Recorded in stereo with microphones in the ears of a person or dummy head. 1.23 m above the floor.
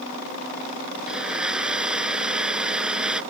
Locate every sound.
1.1 s a blender: 5° right (ahead or behind)